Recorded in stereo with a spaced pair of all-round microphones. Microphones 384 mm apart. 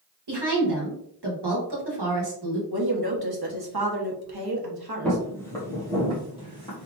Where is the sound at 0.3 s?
80° right, 1.2 m.